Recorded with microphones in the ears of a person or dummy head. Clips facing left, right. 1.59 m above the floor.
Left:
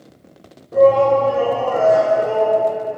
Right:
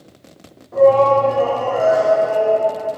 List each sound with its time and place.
0.7 s a shout: 35° left (ahead or behind), 3 m